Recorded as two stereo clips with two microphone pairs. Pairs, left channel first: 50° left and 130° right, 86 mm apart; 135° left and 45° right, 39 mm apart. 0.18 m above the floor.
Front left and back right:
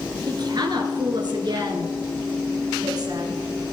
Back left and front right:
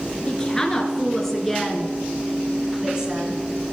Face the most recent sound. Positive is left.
turn(degrees=-105)